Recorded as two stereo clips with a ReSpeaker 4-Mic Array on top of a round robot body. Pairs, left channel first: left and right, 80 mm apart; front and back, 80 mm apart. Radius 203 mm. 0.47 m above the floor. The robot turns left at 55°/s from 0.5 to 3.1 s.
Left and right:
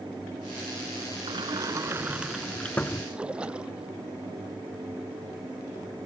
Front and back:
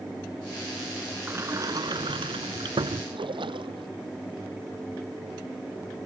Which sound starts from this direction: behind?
A splash, at 3.1 s.